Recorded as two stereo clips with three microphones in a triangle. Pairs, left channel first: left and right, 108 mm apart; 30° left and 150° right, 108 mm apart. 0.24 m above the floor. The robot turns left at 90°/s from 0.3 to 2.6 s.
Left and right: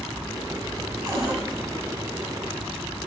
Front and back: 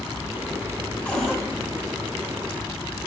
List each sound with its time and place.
1.1 s a cupboard door: 45° right, 2.5 m; by 1.4 s 75° right, 2.5 m